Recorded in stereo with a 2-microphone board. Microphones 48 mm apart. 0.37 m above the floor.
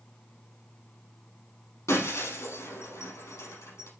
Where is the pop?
I don't hear a pop.